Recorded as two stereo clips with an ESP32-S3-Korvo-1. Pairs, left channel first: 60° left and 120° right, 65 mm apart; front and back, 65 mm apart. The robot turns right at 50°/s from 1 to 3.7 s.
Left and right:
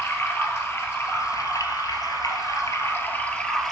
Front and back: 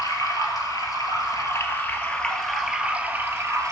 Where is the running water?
10° left, 1.4 m; by 3.7 s 145° left, 1.4 m.